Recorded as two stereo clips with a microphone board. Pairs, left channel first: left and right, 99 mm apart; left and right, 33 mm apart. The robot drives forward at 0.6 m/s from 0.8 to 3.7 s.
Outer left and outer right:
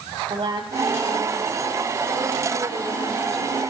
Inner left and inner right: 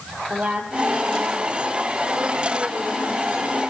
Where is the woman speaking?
65° right (ahead or behind), 5 m; by 3.6 s 50° right (ahead or behind), 6 m.